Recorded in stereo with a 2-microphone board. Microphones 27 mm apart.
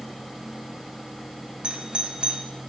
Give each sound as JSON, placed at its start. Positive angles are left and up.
{"t": 1.6, "sound": "a doorbell", "side_deg": -40, "distance_m": 3.0}